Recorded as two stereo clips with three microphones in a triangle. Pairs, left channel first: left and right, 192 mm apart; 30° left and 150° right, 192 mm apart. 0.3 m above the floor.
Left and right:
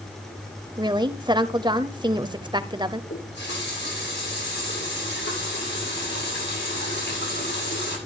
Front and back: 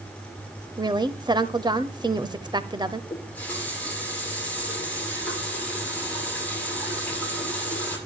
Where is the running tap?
110° left, 8 m.